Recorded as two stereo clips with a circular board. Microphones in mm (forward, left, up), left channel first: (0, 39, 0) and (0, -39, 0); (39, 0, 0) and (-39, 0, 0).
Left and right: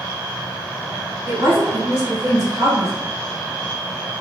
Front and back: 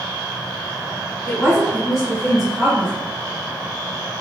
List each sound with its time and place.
1.3 s a woman speaking: 105° right, 1.7 m; by 2.9 s 65° right, 0.9 m